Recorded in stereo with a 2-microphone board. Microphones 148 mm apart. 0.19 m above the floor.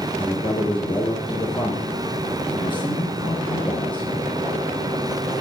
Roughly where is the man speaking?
Left.